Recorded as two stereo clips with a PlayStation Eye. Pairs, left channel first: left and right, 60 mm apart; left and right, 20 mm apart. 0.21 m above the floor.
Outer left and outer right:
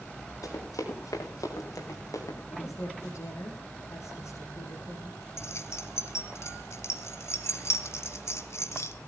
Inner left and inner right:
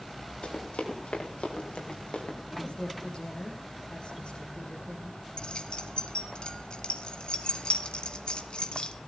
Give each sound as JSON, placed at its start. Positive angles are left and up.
{"t": 0.4, "sound": "running footsteps", "side_deg": 80, "distance_m": 6.5}
{"t": 2.5, "sound": "a woman speaking", "side_deg": 55, "distance_m": 7.5}
{"t": 5.4, "sound": "keys jangling", "side_deg": 50, "distance_m": 1.5}